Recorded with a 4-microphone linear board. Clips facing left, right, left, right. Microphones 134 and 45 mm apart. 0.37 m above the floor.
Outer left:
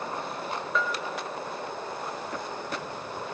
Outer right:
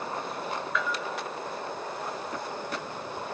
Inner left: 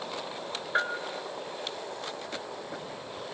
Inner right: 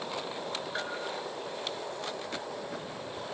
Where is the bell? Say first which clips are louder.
Outer left 3 dB, inner left 10 dB; 30° left (ahead or behind), 1.6 m.